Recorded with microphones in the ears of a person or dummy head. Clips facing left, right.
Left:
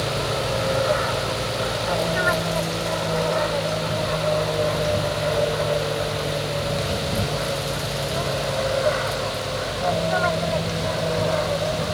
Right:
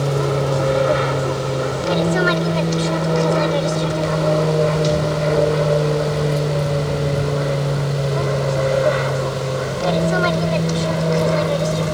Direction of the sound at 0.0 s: 55° right (ahead or behind).